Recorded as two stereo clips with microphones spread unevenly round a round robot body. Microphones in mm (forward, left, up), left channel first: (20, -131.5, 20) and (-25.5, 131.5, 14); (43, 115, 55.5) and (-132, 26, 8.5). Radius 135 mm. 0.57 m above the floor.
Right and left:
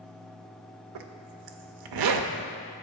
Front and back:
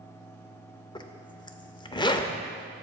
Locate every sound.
0.9 s a zipper: 95° left, 0.6 m